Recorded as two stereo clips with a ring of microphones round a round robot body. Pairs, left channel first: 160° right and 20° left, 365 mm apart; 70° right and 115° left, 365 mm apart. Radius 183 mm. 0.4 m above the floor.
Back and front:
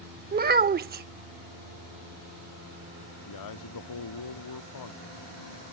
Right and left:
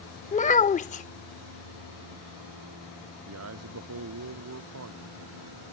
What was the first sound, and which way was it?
A child speaking, 15° right.